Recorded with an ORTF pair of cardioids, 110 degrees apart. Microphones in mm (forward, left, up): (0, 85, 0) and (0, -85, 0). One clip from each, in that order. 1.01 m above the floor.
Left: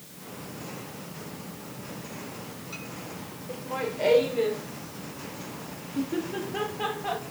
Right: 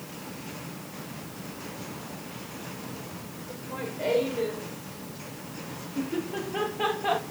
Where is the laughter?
35° left, 3.5 m; by 7.2 s 30° right, 1.0 m.